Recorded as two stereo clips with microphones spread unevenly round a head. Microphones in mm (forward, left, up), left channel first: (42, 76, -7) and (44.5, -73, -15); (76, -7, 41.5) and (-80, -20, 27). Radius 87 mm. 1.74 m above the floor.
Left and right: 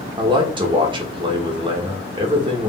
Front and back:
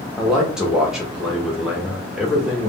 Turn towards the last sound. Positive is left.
turn(degrees=-80)